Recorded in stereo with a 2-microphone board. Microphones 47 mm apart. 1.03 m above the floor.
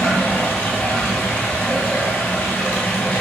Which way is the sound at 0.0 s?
35° left (ahead or behind).